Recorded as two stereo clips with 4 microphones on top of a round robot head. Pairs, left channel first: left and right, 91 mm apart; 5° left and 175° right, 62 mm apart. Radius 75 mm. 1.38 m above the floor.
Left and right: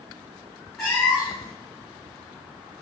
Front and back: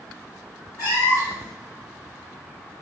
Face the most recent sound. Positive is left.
turn(degrees=5)